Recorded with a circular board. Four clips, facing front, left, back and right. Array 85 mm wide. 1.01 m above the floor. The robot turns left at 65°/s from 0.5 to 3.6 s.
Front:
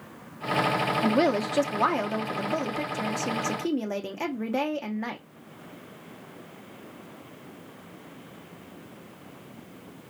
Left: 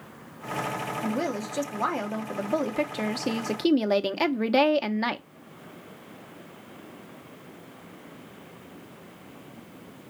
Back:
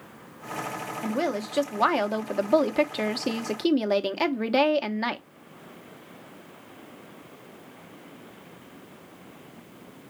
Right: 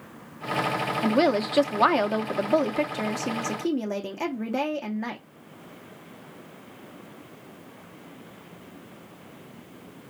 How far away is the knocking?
I don't hear knocking.